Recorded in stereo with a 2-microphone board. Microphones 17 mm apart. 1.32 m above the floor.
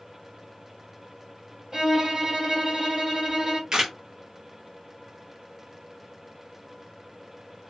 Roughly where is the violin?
Right.